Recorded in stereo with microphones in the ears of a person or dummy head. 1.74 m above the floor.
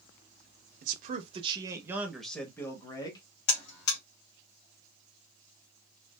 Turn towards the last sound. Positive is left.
turn(degrees=65)  # may be behind; listen again after turning